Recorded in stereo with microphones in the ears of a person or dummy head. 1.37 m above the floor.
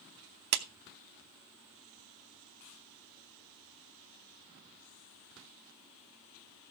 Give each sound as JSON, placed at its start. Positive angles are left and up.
{"t": 0.5, "sound": "a clap", "side_deg": -55, "distance_m": 0.8}